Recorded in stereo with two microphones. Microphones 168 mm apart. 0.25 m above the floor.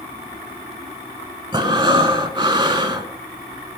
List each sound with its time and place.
1.5 s breathing: 30° right (ahead or behind), 0.7 m